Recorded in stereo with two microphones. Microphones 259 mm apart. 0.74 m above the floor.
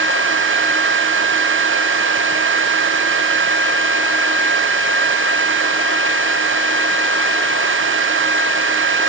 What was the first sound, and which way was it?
Only background noise.